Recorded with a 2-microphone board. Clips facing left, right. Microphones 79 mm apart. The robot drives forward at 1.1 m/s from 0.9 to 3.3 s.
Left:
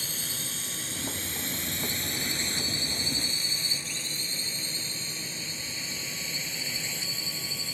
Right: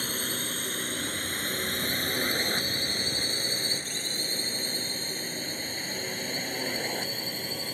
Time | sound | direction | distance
0.0 | a drone | 45° right (ahead or behind) | ?